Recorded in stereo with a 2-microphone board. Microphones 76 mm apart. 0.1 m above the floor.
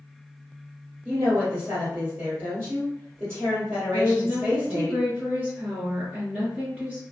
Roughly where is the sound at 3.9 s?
Centre.